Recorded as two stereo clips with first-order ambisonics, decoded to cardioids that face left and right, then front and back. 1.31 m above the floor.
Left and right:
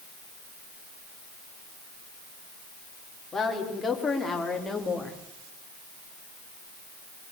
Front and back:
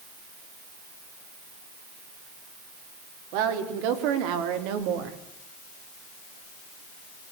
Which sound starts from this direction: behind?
A woman speaking, at 3.3 s.